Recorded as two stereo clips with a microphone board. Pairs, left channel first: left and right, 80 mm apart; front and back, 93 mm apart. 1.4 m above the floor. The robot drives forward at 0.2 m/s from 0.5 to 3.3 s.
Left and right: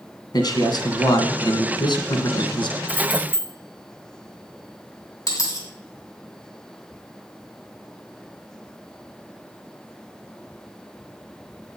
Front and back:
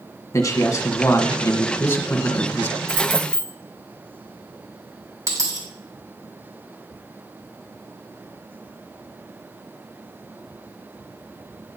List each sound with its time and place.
0.3 s a man speaking: 55° left, 1.5 m; by 2.8 s 75° left, 1.3 m
2.9 s keys jangling: 95° left, 2.5 m
5.3 s a dropped coin: 125° left, 2.5 m